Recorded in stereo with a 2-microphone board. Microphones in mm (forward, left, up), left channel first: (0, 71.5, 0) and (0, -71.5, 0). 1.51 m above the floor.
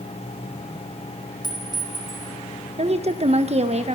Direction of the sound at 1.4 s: 30° left (ahead or behind).